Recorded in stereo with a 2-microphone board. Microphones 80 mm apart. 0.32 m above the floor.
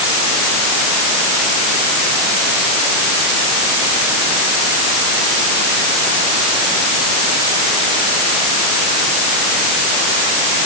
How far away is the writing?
No writing in this recording.